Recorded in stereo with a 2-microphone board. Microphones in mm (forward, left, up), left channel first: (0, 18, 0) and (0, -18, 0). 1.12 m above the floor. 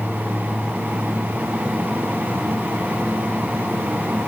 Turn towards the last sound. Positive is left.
No sound to turn to.